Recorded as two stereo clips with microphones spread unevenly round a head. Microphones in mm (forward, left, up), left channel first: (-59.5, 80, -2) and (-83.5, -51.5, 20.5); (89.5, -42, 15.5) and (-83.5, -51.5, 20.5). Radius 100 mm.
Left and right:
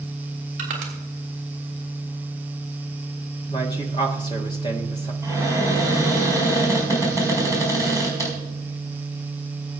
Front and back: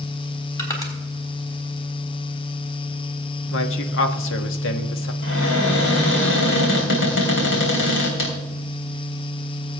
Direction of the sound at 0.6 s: 65° right.